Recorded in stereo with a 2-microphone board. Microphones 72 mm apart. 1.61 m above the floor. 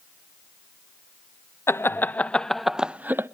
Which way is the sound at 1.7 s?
35° left (ahead or behind).